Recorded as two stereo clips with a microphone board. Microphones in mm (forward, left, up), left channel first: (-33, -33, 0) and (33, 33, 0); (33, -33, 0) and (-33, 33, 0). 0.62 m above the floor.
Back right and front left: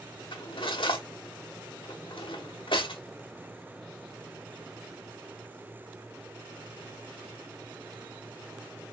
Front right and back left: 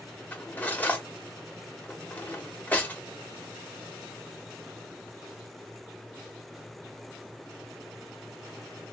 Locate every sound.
0.3 s cutlery clinking: 115° right, 1.2 m